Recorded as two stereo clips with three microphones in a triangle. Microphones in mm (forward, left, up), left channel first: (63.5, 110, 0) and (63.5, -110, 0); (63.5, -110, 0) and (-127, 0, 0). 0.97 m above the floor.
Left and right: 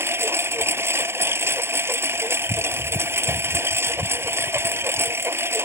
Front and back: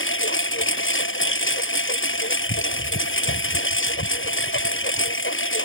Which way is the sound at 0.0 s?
10° right.